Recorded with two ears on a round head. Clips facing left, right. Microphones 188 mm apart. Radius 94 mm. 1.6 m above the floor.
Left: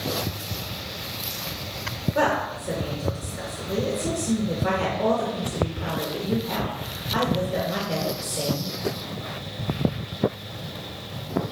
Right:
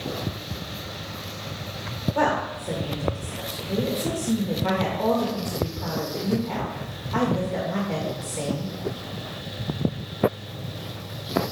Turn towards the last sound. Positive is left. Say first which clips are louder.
# left 1 dB
turn(degrees=15)  # may be behind; listen again after turning